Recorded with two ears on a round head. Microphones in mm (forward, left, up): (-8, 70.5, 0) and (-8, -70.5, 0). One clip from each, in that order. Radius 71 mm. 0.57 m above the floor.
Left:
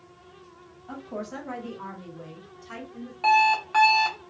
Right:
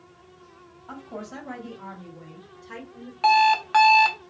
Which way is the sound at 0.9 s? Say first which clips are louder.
Left 2 dB; 20° right (ahead or behind).